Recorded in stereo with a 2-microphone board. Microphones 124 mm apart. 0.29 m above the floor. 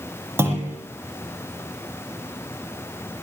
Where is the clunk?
20° right (ahead or behind), 7.5 m.